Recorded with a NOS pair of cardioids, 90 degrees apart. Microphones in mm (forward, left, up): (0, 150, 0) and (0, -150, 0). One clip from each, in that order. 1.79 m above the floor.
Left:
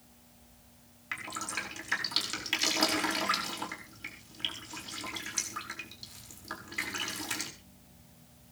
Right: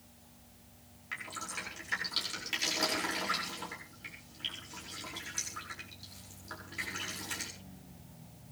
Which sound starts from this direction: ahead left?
Dripping, at 1.1 s.